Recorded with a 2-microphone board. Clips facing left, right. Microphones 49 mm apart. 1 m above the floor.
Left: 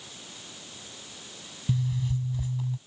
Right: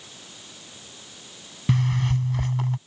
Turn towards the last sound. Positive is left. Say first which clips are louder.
# right 6 dB
turn(degrees=-75)  # may be behind; listen again after turning